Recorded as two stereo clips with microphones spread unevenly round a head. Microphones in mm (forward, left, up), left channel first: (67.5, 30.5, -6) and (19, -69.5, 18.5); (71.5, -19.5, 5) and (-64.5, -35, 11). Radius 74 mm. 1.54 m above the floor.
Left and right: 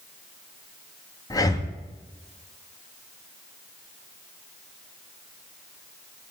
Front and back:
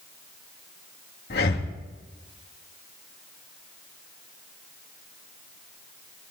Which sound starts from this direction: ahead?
Breathing, at 1.3 s.